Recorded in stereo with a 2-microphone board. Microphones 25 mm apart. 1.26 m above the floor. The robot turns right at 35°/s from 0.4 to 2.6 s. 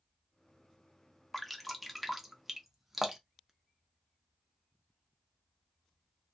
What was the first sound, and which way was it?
Dripping, 10° left (ahead or behind).